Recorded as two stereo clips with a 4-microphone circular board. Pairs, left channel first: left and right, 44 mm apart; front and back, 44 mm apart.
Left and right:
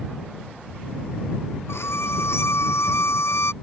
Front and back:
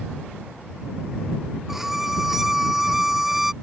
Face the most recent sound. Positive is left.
turn(degrees=95)